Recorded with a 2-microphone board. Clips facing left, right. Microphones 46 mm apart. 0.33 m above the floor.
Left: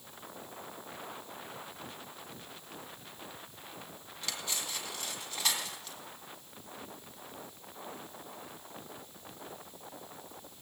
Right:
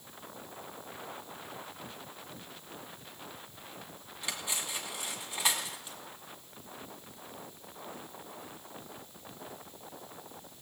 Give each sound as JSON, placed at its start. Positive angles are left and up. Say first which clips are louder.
{"t": 4.2, "sound": "cutlery clinking", "louder": "right 1 dB", "side_deg": -20, "distance_m": 1.5}